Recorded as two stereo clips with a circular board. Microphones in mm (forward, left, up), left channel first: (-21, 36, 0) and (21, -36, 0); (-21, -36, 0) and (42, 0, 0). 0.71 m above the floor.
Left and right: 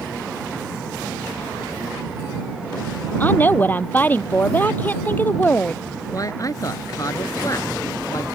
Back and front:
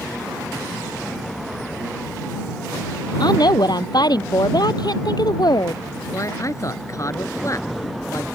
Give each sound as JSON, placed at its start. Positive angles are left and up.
{"t": 3.2, "sound": "a woman speaking", "azimuth_deg": -175}
{"t": 6.1, "sound": "a man speaking", "azimuth_deg": 165}